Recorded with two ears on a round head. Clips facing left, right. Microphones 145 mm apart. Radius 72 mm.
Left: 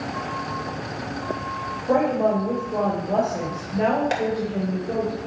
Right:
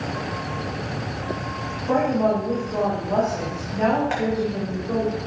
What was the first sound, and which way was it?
A woman speaking, 20° left (ahead or behind).